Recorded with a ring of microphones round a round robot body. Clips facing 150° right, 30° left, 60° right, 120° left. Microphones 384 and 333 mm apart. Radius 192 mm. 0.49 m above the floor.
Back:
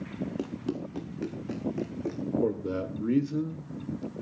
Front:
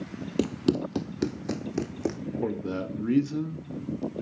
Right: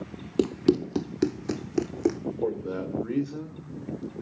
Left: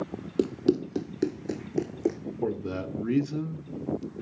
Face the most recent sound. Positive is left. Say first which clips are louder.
# front 1 dB, even
turn(degrees=100)